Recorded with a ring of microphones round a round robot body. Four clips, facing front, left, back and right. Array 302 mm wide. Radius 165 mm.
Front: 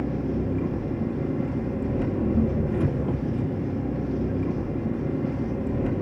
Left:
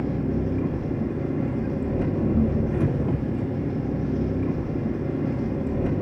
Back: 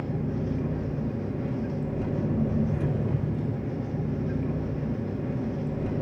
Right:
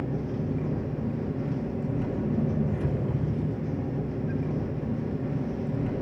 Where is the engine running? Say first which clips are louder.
Left 5 dB, front 4 dB; 60° left, 2.5 m.